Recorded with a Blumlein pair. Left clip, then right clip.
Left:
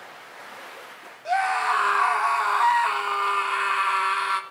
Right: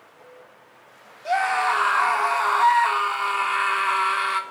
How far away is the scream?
About 3 m.